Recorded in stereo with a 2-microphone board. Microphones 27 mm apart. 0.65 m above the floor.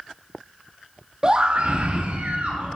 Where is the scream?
25° right (ahead or behind), 0.6 m; by 2.7 s 65° right (ahead or behind), 1.3 m.